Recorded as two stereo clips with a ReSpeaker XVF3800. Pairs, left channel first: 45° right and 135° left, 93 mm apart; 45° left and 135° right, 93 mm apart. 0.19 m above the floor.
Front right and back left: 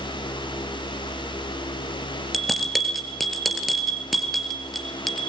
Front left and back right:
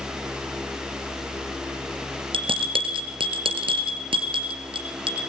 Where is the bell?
135° right, 3 m.